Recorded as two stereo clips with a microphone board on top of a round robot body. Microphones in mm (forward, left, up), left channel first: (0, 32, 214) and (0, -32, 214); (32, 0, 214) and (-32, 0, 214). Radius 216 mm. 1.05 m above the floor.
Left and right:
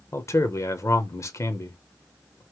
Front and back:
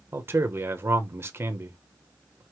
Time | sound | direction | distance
0.1 | a man speaking | 125° left | 1.0 m